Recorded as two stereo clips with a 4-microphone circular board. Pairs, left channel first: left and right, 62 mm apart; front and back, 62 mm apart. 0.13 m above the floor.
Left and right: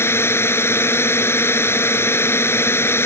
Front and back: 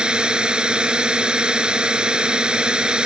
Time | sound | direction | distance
0.0 | a drone | 110° left | ?